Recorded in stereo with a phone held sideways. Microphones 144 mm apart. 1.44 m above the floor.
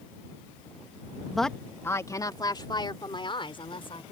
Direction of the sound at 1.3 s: Centre (ahead or behind).